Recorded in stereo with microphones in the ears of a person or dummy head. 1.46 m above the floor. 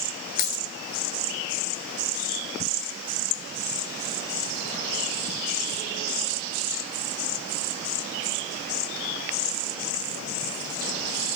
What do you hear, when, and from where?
0.4 s a dropped coin: 60° left (ahead or behind), 2 m